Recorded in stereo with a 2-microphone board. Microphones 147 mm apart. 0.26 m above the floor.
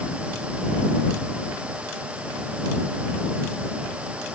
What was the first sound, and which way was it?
Only background noise.